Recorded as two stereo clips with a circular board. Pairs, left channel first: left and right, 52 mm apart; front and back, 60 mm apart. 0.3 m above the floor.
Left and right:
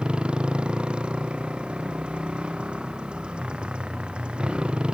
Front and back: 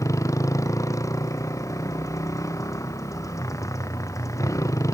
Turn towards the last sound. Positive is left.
turn(degrees=-15)